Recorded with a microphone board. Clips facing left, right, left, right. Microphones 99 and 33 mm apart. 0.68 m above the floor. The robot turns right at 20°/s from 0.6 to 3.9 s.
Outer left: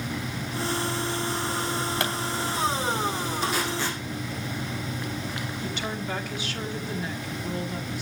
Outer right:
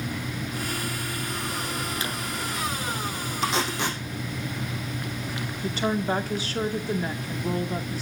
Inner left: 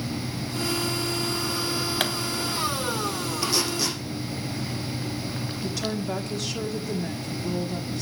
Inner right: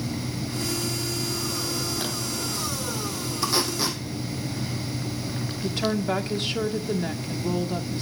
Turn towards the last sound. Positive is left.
turn(degrees=-35)  # may be behind; listen again after turning